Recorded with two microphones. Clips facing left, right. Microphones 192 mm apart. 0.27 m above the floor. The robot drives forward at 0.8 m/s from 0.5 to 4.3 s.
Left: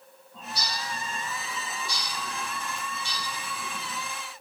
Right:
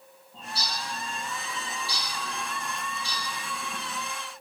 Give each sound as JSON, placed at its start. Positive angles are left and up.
{"t": 0.3, "sound": "a bird", "side_deg": -30, "distance_m": 8.5}